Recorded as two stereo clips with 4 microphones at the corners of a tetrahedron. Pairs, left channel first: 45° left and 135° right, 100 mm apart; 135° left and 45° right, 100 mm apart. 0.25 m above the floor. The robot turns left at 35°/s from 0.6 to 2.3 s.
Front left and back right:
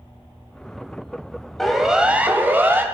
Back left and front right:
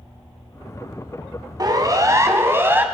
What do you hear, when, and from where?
1.6 s a siren: 40° right, 2.5 m; by 2.9 s 90° right, 2 m